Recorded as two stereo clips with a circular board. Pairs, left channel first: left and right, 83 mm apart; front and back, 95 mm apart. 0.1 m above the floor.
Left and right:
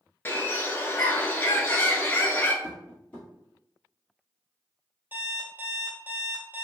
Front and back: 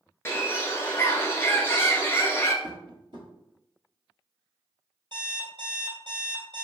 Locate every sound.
0.2 s a bird: 45° left, 0.5 m
2.6 s tapping: 160° left, 1.3 m
5.1 s an alarm clock: 150° right, 1.4 m